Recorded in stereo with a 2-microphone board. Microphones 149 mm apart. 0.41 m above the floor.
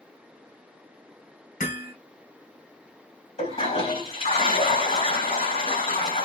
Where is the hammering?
75° left (ahead or behind), 2.0 m.